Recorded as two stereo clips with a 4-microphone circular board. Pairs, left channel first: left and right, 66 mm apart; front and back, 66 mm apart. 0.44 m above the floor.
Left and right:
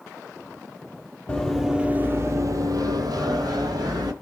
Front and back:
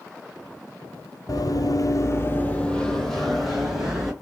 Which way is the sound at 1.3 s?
15° left.